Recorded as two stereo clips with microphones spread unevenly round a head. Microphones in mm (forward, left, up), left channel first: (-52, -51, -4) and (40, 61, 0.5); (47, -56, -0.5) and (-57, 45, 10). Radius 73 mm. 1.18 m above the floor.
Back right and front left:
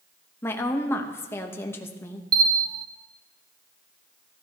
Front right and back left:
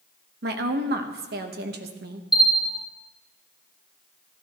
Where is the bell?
60° left, 0.6 m.